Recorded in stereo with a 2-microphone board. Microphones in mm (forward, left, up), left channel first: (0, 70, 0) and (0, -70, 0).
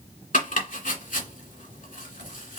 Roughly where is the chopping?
Left.